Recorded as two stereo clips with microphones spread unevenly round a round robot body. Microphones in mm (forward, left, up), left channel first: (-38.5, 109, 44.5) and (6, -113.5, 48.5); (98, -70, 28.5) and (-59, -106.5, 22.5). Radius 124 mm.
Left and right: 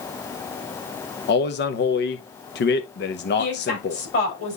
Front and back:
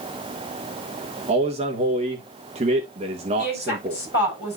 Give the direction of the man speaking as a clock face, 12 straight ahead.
7 o'clock.